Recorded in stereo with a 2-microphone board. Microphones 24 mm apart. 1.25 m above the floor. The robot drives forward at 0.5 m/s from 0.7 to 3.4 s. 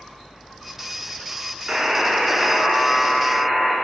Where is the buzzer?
35° right (ahead or behind), 2.0 m; by 3.7 s 25° right (ahead or behind), 2.5 m.